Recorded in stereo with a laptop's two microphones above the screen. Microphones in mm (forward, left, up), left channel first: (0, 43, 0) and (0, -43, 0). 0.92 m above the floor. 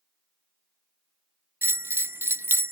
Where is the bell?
25° right (ahead or behind), 0.5 m.